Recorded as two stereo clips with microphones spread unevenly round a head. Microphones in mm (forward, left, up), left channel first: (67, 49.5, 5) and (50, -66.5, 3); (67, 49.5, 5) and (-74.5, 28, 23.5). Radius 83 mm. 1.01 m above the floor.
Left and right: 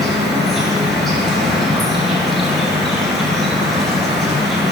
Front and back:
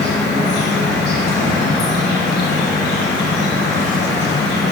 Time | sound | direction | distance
0.0 | an insect | 5° right | 3 m